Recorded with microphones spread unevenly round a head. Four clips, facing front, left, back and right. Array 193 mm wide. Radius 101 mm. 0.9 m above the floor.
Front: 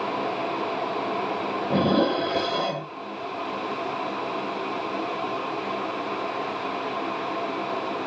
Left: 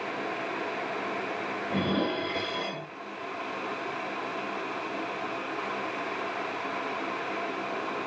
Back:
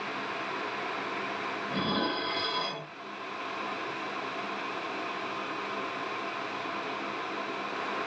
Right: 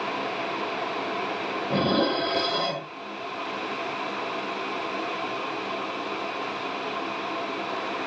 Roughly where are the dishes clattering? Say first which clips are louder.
Right 5 dB, front 10 dB; ahead right.